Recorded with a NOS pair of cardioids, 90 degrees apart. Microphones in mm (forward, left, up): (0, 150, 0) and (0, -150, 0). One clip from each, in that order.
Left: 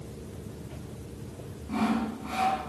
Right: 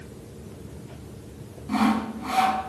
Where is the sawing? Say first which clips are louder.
Right 5 dB; 60° right, 4.5 m.